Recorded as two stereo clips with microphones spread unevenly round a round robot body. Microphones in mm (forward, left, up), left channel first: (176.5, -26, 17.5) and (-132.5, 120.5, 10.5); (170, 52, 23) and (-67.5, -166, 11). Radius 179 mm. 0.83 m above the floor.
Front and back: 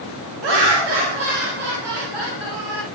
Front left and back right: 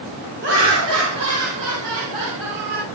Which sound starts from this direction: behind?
Laughter, at 0.4 s.